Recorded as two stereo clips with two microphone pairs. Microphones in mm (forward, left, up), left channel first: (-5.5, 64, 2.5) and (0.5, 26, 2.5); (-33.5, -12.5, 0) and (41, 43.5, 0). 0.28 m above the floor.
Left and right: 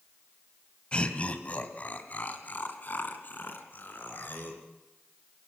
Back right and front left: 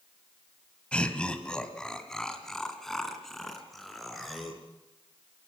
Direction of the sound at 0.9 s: 140° left.